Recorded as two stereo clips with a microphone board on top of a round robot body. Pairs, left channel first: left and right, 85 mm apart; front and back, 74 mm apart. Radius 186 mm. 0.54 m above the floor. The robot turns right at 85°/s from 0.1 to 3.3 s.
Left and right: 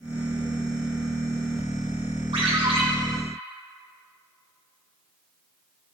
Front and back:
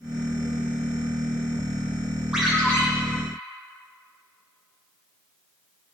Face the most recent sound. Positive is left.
turn(degrees=-20)